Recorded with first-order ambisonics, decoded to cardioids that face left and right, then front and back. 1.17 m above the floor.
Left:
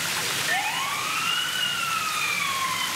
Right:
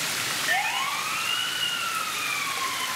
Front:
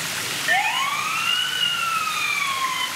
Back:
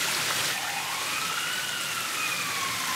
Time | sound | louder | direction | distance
0.5 | a siren | right 2 dB, front 10 dB | 5° right | 3.5 m